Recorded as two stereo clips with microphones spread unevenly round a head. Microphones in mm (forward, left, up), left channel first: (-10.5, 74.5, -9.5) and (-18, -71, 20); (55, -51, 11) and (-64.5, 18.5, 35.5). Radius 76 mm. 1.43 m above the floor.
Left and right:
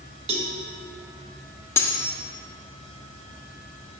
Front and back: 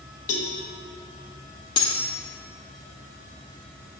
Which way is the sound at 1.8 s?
5° left.